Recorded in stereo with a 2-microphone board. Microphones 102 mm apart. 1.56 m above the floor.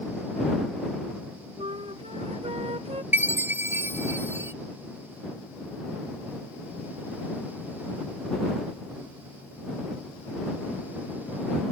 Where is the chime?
20° right (ahead or behind).